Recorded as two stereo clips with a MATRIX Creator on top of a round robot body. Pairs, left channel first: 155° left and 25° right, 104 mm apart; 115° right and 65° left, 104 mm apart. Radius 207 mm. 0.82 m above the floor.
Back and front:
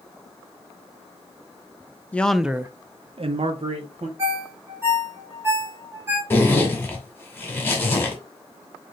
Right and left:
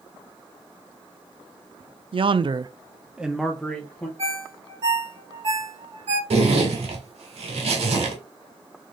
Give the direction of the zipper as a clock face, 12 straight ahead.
9 o'clock.